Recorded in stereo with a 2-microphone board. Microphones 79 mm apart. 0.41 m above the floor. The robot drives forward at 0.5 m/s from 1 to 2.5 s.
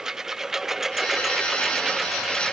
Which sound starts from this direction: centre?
A lawn mower, at 0.0 s.